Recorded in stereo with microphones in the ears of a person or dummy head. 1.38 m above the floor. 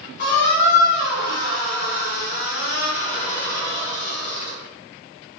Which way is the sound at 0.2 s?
60° left (ahead or behind).